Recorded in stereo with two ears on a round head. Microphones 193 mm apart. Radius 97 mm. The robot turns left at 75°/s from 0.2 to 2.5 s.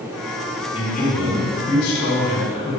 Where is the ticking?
I don't hear ticking.